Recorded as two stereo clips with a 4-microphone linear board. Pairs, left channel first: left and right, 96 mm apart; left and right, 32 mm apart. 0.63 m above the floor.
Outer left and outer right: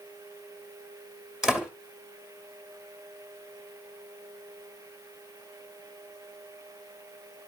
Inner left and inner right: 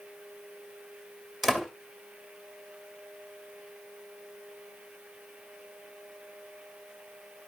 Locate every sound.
1.4 s a door slam: 5° right (ahead or behind), 2 m